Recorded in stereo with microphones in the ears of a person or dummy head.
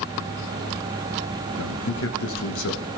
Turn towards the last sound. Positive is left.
turn(degrees=65)  # may be behind; listen again after turning